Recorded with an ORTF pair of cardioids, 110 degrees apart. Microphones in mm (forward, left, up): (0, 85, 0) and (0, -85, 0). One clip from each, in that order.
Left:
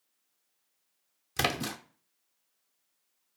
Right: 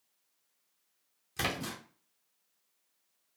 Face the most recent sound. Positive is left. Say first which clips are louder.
# left 4 dB
turn(degrees=35)